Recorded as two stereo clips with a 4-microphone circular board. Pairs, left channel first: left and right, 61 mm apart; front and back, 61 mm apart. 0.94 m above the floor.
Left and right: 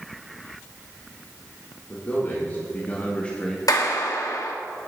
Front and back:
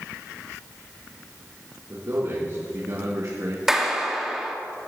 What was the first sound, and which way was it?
A man speaking, 140° left.